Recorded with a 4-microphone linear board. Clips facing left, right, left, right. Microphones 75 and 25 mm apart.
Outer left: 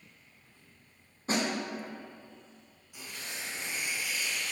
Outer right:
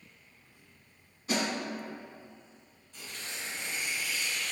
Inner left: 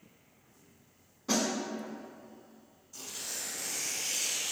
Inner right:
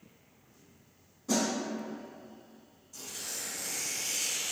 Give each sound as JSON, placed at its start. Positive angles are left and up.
{"t": 1.3, "sound": "a snare drum", "side_deg": 40, "distance_m": 1.3}
{"t": 2.9, "sound": "tearing paper", "side_deg": 10, "distance_m": 1.7}